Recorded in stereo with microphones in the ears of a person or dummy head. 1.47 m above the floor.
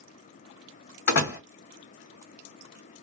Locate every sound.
1.1 s a door slam: 60° left (ahead or behind), 1.9 m